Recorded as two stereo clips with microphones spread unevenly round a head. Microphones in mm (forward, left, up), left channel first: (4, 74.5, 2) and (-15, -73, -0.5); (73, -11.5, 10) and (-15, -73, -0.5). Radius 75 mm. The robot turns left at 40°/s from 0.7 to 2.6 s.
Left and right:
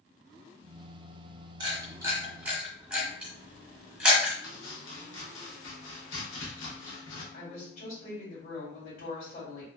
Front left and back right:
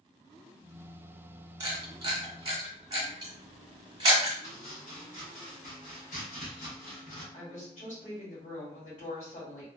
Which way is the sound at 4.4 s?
80° left.